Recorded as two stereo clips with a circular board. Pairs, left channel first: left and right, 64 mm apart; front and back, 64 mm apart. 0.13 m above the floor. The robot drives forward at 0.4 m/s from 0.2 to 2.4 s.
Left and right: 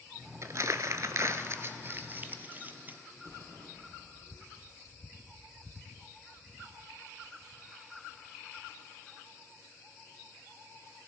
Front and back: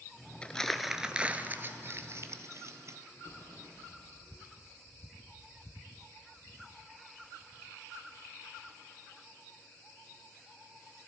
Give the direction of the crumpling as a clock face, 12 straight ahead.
2 o'clock.